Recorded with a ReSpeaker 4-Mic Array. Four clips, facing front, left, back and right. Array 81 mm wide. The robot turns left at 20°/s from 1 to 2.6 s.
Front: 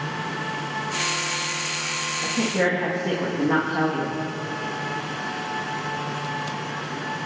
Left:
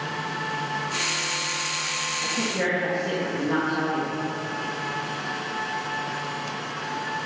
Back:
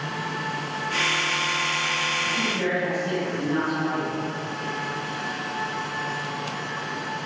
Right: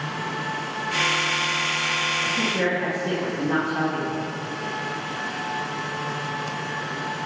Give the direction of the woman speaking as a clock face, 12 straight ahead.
12 o'clock.